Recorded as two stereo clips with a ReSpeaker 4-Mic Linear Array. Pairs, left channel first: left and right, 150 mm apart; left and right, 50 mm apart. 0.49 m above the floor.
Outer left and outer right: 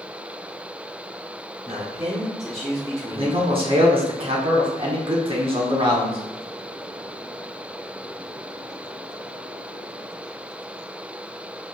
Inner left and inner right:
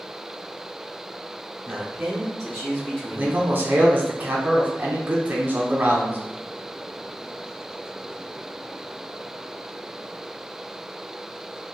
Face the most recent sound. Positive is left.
turn(degrees=-35)  # may be behind; listen again after turning